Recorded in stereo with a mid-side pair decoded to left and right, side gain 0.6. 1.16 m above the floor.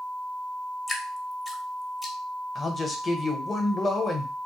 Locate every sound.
0.9 s dripping: 15° left, 0.7 m
2.5 s a man speaking: 30° left, 0.8 m